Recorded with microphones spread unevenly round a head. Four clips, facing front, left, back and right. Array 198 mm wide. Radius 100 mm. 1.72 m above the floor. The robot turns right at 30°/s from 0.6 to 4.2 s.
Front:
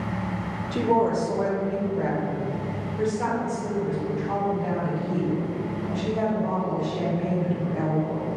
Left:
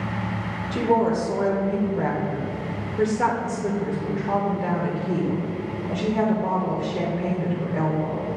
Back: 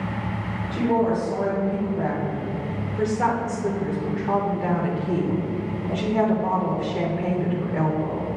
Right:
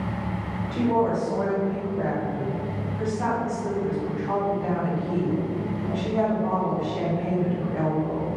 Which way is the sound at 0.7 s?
35° left.